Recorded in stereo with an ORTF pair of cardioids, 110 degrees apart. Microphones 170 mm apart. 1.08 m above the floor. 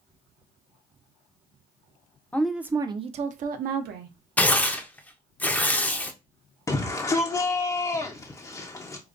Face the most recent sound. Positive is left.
turn(degrees=20)